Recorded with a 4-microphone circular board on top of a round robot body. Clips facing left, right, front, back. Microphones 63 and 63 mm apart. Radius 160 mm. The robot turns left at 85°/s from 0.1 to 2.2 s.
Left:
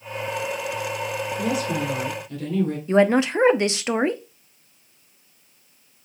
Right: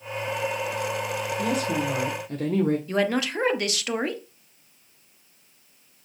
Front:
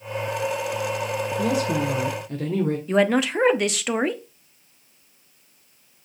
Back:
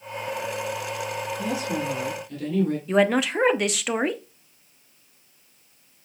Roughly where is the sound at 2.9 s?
Left.